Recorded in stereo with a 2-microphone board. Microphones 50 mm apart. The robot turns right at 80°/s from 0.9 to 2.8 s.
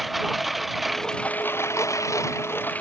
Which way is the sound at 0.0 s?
Centre (ahead or behind).